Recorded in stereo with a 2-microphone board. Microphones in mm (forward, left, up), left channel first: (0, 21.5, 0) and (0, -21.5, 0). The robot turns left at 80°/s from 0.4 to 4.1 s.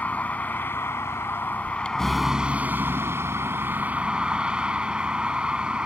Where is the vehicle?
140° left; by 5.9 s 155° right.